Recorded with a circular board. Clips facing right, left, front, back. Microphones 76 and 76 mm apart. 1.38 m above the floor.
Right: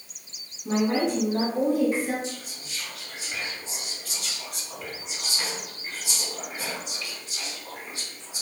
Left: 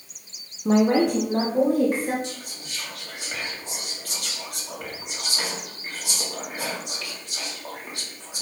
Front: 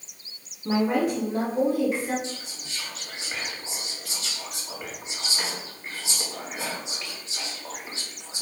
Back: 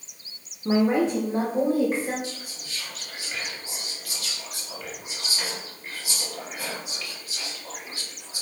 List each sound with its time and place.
0.7 s a woman speaking: 100° left, 1.0 m; by 2.1 s 130° left, 2.5 m
2.2 s whispering: 65° left, 2.5 m